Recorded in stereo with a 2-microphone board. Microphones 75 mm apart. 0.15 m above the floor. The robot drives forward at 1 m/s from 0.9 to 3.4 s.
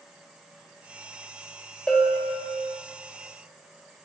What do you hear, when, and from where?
1.9 s a bell: 10° left (ahead or behind), 1.2 m; by 2.7 s 5° left (ahead or behind), 2 m